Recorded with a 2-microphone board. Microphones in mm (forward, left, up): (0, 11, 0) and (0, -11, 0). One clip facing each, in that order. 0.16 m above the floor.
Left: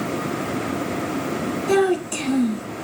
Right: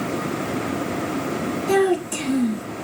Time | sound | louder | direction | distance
1.7 | a child speaking | even | 15° left (ahead or behind) | 1.3 m